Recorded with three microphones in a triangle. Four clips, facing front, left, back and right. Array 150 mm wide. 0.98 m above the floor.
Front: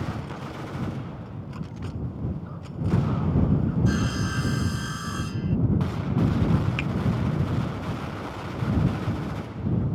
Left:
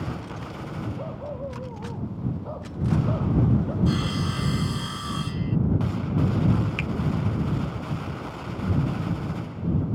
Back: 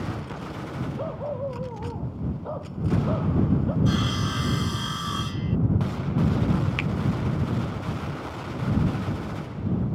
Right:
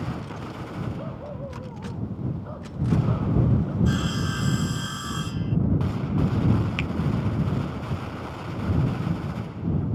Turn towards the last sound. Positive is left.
turn(degrees=-145)